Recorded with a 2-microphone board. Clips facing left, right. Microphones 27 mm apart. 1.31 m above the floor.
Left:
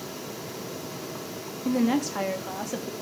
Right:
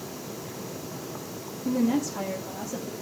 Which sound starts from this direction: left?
A woman speaking, at 1.6 s.